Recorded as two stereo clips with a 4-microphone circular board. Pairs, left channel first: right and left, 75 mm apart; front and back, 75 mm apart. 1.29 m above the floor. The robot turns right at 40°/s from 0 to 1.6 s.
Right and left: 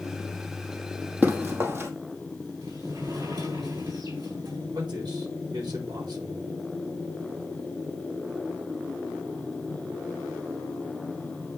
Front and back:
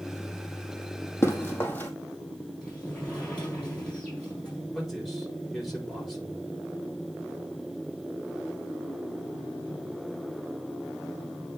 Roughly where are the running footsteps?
Ahead left.